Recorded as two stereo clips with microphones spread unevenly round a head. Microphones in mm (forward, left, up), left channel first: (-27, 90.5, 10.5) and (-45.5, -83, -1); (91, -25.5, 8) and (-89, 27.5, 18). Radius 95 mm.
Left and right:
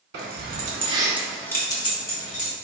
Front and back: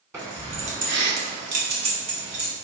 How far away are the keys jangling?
About 1.7 m.